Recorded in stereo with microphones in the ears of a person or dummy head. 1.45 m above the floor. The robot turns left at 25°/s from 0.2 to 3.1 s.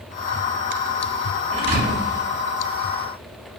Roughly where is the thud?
Right.